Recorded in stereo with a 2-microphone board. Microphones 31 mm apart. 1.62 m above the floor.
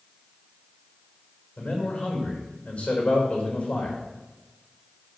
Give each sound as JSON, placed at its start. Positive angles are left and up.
{"t": 1.6, "sound": "a man speaking", "side_deg": 35, "distance_m": 5.0}